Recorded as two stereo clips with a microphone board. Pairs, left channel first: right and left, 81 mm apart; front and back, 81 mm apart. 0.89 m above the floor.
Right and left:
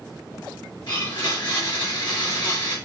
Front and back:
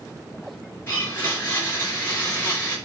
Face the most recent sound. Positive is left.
turn(degrees=-60)